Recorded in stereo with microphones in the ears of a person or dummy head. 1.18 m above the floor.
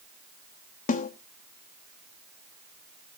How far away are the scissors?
I don't hear scissors.